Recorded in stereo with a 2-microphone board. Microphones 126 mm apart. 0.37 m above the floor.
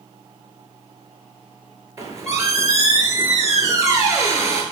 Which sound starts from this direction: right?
A squeak, at 2.0 s.